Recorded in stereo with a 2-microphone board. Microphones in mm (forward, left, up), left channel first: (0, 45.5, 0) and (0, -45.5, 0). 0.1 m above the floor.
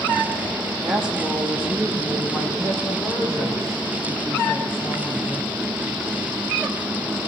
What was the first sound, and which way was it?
A woman speaking, 5° right (ahead or behind).